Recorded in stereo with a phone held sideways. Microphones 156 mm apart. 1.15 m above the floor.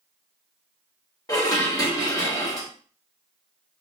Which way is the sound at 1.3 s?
25° left (ahead or behind).